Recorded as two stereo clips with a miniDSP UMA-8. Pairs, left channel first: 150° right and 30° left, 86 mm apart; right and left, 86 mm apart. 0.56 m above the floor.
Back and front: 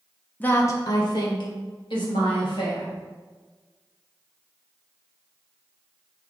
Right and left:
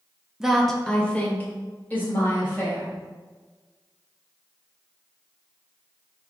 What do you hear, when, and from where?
0.4 s a woman speaking: 160° left, 0.6 m; by 2.9 s 155° right, 2.5 m